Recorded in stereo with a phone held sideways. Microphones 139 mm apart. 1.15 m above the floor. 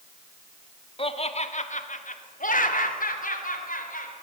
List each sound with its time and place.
1.0 s laughter: 40° left (ahead or behind), 1.8 m; by 4.1 s 85° left, 4 m